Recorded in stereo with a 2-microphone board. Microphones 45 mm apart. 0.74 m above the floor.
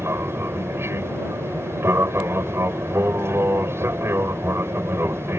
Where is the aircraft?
65° right (ahead or behind).